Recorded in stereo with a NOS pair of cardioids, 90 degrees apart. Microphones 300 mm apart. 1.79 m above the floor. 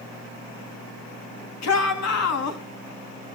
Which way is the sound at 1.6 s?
65° left.